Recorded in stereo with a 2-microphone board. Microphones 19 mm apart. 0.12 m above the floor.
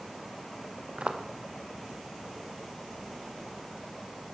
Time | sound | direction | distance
1.0 | footsteps | 65° right (ahead or behind) | 1.7 m